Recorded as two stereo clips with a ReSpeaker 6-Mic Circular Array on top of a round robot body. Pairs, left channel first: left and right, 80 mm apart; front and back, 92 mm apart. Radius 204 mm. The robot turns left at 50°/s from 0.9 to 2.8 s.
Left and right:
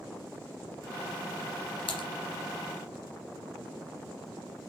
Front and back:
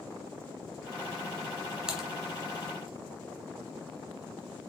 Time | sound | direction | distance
1.9 | typing on a keyboard | 100° left | 1.8 m